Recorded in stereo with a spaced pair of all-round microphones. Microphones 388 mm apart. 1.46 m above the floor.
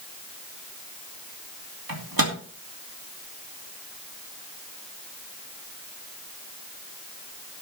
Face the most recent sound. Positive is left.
turn(degrees=-60)  # may be behind; listen again after turning